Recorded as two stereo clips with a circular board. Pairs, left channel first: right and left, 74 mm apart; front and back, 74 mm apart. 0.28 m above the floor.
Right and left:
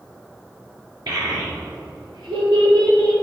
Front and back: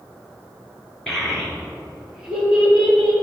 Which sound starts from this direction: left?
A child speaking, at 1.1 s.